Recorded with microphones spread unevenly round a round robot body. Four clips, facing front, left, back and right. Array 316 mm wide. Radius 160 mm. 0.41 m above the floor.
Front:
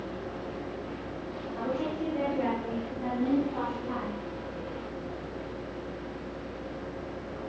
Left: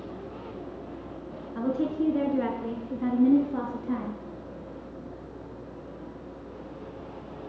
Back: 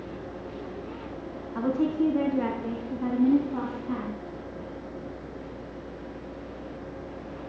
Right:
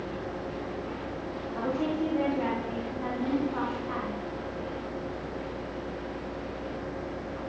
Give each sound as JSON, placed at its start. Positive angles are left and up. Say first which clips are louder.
{"t": 1.6, "sound": "a woman speaking", "louder": "left 2 dB, back 7 dB", "azimuth_deg": 155, "distance_m": 4.0}